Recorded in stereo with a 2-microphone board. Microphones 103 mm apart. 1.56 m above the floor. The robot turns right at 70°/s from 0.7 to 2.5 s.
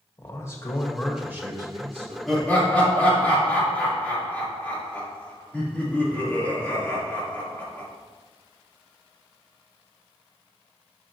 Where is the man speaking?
155° left, 1.5 m; by 2.2 s 105° right, 1.5 m.